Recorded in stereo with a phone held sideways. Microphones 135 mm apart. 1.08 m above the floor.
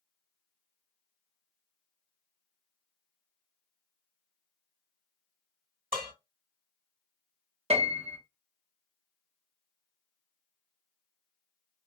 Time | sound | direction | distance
5.9 | dishes clattering | 85° right | 2 m
7.7 | a piano | 45° right (ahead or behind) | 0.7 m